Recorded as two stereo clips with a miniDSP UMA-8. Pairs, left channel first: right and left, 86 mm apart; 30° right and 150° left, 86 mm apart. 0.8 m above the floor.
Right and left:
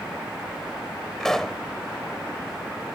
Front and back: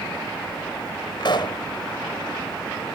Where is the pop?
5° right.